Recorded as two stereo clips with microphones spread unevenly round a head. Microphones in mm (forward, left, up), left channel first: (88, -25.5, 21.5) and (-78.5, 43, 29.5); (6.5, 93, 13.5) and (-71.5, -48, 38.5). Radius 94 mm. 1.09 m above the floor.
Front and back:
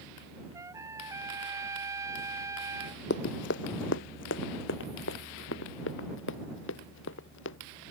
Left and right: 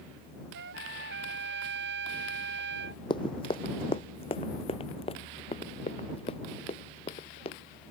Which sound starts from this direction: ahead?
Running footsteps, at 3.1 s.